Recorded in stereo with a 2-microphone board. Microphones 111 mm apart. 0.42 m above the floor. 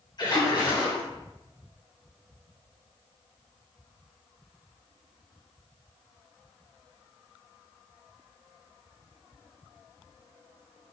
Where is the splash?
40° left (ahead or behind), 3 m.